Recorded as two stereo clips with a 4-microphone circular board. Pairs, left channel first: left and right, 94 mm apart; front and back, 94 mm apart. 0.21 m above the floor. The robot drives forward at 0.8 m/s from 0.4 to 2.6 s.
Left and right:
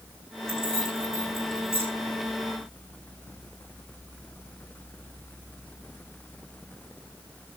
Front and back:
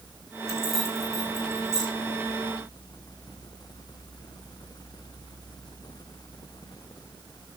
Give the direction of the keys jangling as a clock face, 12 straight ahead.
3 o'clock.